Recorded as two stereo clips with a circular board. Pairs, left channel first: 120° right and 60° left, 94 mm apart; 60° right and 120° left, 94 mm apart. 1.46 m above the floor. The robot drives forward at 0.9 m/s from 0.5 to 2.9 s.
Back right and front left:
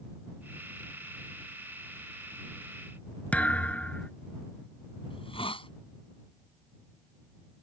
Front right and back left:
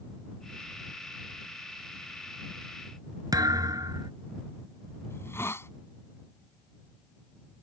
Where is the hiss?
120° right.